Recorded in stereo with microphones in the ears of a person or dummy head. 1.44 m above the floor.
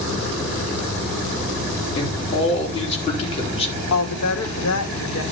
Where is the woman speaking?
80° left, 2 m.